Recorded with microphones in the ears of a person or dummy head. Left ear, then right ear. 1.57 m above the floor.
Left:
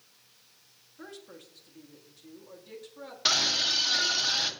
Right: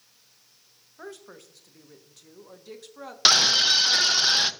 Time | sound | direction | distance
1.0 | a woman speaking | 35° right (ahead or behind) | 1.0 m
3.2 | a scream | 45° right (ahead or behind) | 0.6 m